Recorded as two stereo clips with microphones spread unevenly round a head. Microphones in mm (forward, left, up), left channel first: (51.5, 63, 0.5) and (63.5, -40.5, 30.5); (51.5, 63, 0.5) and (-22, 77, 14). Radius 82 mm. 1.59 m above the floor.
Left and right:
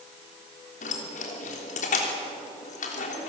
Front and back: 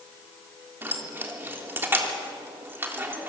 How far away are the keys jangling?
About 3 m.